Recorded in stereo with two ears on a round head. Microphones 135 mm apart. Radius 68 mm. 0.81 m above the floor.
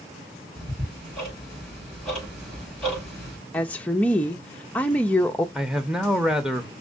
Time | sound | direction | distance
0.6 | ticking | 5° left (ahead or behind) | 4 m
3.5 | a woman speaking | 10° left (ahead or behind) | 0.5 m
5.5 | a man speaking | 5° right (ahead or behind) | 0.7 m